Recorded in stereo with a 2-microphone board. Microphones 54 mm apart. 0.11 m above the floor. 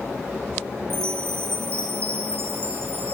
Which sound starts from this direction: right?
A chime, at 0.9 s.